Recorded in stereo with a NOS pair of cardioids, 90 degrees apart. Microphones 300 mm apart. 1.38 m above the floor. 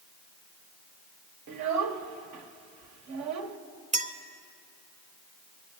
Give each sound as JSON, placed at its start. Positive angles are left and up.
{"t": 1.5, "sound": "a child speaking", "azimuth_deg": -70, "distance_m": 1.3}
{"t": 3.9, "sound": "a clink", "azimuth_deg": -25, "distance_m": 0.9}